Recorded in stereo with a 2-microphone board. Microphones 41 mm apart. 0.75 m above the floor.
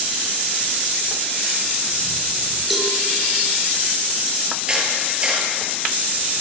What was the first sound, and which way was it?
A cowbell, centre (ahead or behind).